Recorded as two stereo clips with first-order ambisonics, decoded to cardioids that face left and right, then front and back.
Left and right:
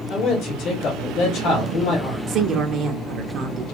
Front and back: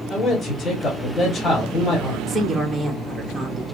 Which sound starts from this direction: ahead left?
A man speaking, at 0.1 s.